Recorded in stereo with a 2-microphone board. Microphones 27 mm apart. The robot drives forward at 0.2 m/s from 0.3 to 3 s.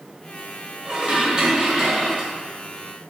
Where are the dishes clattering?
45° right (ahead or behind), 1.6 m; by 2.3 s 35° right (ahead or behind), 1.8 m.